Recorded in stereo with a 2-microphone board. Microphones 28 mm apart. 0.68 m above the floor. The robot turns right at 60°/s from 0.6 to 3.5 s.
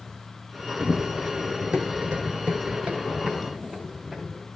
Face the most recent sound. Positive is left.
turn(degrees=-25)  # may be behind; listen again after turning